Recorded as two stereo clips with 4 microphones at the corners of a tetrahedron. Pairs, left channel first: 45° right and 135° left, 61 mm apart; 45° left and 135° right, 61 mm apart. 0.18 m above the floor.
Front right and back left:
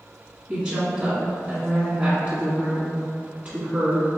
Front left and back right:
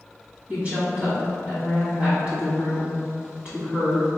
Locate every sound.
0.5 s a woman speaking: 170° right, 1.8 m